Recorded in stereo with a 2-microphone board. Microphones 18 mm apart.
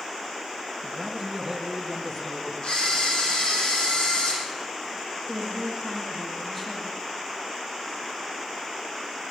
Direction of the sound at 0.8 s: 20° right (ahead or behind).